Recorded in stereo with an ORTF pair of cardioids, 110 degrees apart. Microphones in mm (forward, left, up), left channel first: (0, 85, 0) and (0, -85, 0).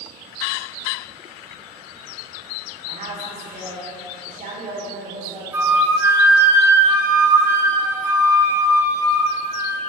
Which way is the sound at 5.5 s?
15° right.